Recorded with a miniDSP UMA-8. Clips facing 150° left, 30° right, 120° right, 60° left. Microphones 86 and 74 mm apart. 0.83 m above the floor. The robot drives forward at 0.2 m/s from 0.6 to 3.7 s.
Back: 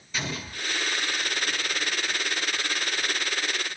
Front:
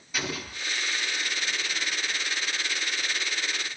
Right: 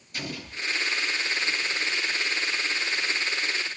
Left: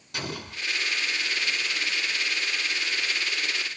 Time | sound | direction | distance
0.1 | an explosion | 50° left | 2 m